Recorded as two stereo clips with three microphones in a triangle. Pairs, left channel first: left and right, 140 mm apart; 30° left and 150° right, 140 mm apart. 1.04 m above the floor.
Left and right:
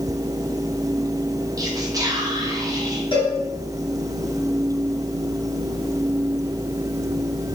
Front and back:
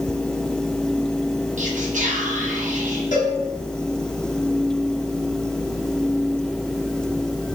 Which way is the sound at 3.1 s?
40° left.